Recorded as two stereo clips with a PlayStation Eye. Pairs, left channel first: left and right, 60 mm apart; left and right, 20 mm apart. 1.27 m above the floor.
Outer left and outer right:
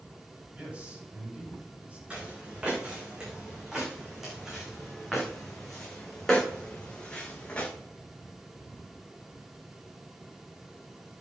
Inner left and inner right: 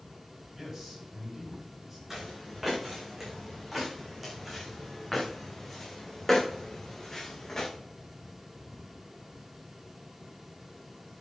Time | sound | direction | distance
0.6 | a man speaking | 25° right (ahead or behind) | 7 m
2.1 | footsteps | 20° right (ahead or behind) | 6 m